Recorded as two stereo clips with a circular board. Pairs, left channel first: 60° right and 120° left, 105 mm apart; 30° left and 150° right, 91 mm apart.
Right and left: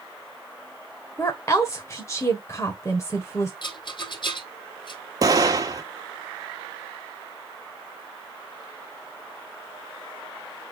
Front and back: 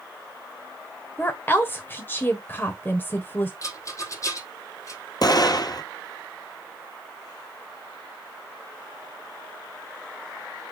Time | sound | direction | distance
1.2 | a woman speaking | 20° right | 1.4 m
3.6 | a rattle | 20° right | 1.9 m
5.2 | an explosion | 70° left | 1.3 m